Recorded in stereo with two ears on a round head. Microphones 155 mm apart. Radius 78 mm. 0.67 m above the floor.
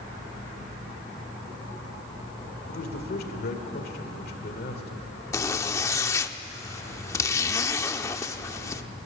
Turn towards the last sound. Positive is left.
turn(degrees=15)  # may be behind; listen again after turning